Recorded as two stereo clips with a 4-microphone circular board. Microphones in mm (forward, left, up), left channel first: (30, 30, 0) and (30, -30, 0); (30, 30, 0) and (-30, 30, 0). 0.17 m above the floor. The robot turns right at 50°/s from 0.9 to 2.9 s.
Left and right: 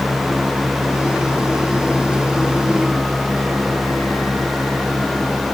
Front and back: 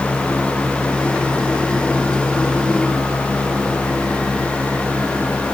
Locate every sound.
Only background noise.